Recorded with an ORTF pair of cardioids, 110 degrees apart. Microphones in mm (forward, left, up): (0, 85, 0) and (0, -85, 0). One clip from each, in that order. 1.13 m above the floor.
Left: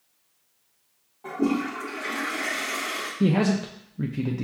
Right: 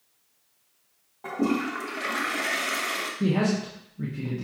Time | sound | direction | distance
1.2 | a toilet flushing | 25° right | 1.0 m
3.2 | a man speaking | 30° left | 0.5 m